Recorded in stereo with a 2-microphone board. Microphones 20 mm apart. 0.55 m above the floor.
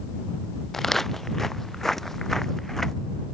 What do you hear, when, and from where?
0.7 s footsteps: 15° left (ahead or behind)